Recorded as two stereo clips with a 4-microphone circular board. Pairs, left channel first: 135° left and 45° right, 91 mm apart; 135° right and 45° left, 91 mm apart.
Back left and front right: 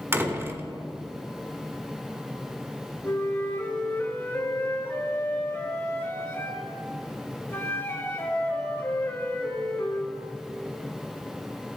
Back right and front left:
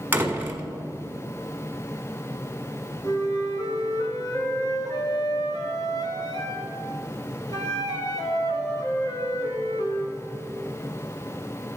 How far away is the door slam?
About 1.3 m.